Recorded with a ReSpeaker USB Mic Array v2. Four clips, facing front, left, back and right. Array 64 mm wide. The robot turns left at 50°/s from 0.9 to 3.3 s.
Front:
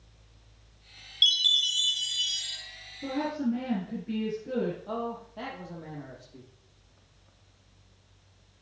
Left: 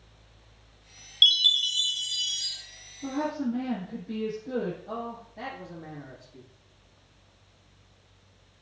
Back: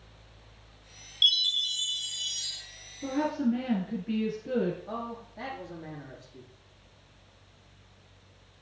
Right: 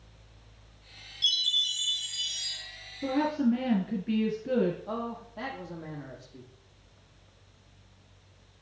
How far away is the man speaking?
About 3.5 m.